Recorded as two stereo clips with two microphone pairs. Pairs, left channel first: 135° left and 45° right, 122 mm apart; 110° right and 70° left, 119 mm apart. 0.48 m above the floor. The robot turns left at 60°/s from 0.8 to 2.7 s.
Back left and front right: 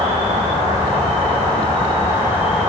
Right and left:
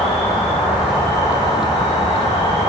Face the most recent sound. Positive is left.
turn(degrees=-130)